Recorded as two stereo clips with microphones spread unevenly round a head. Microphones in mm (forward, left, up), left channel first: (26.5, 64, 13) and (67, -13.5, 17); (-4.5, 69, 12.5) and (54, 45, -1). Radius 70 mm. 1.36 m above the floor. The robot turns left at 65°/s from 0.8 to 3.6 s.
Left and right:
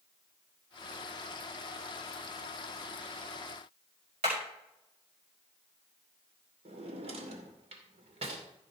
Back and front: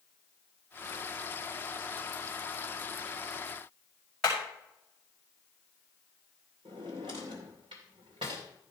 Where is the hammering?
115° right, 5.5 m.